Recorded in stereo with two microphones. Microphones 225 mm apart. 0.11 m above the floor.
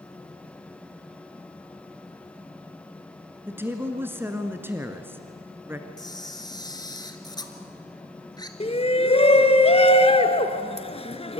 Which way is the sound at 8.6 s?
25° left (ahead or behind).